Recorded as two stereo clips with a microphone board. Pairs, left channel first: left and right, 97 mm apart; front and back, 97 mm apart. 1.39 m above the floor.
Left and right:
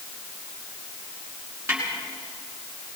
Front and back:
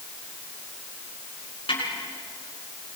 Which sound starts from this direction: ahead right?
A snare drum, at 1.7 s.